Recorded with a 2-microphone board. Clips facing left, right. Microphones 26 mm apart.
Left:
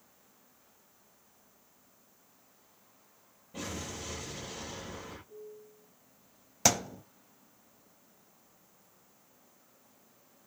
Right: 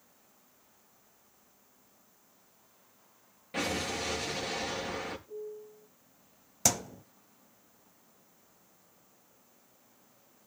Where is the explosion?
85° right, 6 m.